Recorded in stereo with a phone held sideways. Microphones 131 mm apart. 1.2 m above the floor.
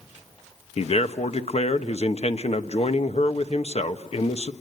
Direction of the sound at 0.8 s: 55° left (ahead or behind).